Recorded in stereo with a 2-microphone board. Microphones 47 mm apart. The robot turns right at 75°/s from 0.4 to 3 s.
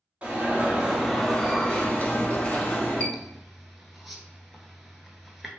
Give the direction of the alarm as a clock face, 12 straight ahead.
2 o'clock.